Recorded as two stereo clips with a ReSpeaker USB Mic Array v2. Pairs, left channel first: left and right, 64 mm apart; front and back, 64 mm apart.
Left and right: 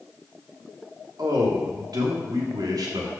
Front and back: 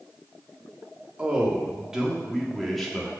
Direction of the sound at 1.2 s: 110° right.